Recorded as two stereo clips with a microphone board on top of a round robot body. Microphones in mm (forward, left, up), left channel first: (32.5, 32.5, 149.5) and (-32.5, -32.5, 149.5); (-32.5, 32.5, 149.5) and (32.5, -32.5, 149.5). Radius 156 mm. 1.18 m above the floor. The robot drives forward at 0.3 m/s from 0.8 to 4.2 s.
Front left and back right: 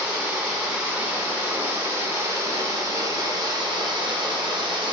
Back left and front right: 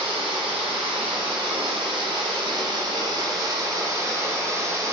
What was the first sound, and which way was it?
Running water, 55° right.